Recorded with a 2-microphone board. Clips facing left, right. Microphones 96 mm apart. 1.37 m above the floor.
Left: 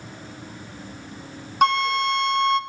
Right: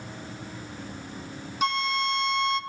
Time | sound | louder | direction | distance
1.6 | a flute | left 7 dB | 55° left (ahead or behind) | 0.7 m